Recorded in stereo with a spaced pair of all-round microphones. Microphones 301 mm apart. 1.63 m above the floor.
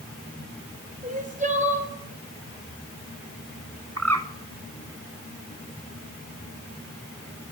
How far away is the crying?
About 2.5 m.